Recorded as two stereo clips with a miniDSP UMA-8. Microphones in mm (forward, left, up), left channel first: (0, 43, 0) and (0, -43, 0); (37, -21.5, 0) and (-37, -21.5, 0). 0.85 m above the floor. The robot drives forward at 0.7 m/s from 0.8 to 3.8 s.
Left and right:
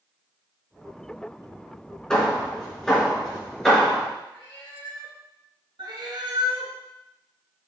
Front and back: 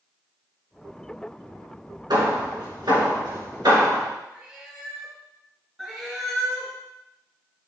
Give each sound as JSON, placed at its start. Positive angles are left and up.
{"t": 2.1, "sound": "hammering", "azimuth_deg": 170, "distance_m": 2.5}
{"t": 4.3, "sound": "a cat meowing", "azimuth_deg": 105, "distance_m": 2.5}
{"t": 5.8, "sound": "a cat meowing", "azimuth_deg": -100, "distance_m": 2.5}